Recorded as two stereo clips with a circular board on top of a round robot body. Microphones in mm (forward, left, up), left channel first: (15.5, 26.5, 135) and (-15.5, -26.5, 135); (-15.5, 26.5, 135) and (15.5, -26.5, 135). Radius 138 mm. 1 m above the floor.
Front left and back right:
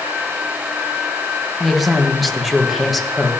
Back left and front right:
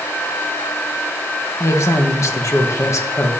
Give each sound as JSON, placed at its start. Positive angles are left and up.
{"t": 1.6, "sound": "a woman speaking", "azimuth_deg": 150, "distance_m": 1.5}